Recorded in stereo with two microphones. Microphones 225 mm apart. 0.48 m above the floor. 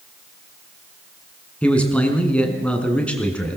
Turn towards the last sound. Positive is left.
turn(degrees=5)  # may be behind; listen again after turning